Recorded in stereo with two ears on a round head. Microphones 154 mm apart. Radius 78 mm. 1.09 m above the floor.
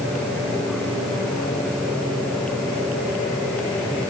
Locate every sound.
Only background noise.